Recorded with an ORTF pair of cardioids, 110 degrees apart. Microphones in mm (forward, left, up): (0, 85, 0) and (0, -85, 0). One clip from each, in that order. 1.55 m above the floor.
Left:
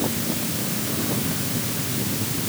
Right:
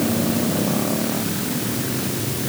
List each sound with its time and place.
Only background noise.